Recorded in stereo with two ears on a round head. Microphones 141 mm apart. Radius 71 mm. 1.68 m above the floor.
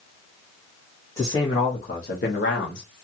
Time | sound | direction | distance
1.2 | a man speaking | 15° left (ahead or behind) | 1.1 m